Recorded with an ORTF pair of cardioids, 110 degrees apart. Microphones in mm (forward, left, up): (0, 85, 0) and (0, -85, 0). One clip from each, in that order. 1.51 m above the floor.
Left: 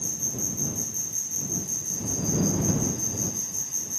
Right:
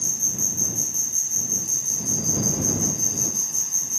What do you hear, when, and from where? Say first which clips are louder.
0.0 s an insect: right 6 dB; 35° right